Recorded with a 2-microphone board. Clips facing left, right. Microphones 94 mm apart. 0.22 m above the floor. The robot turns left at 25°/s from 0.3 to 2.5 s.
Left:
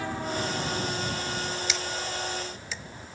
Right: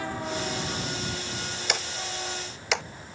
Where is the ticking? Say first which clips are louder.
Even; 55° right (ahead or behind); by 2.8 s 75° right (ahead or behind).